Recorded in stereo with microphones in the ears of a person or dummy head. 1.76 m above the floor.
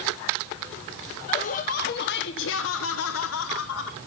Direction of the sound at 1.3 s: 35° left (ahead or behind).